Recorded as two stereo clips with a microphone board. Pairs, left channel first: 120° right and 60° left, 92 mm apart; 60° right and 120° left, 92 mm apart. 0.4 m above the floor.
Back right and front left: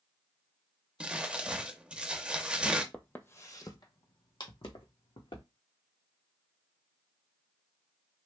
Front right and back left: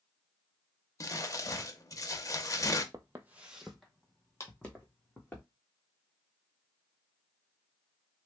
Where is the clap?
110° right, 0.9 m.